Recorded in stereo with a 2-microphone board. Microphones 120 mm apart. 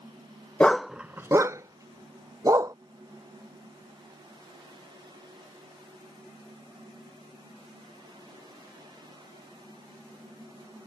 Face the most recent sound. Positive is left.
turn(degrees=-30)  # may be behind; listen again after turning